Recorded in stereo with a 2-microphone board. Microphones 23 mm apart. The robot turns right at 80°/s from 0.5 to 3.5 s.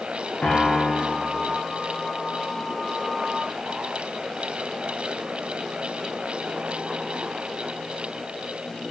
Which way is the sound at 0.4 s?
60° left.